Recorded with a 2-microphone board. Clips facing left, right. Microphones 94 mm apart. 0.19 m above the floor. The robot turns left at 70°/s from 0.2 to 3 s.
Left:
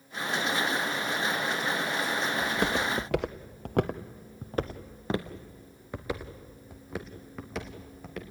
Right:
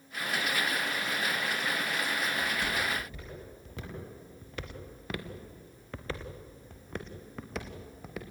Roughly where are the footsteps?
Left.